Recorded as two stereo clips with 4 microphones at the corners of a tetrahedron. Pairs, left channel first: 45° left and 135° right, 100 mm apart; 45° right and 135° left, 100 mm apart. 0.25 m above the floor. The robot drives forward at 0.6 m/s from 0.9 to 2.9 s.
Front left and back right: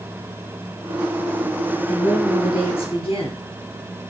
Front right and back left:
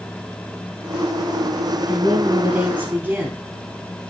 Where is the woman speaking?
60° left, 4.5 m; by 3.4 s 65° left, 4.5 m.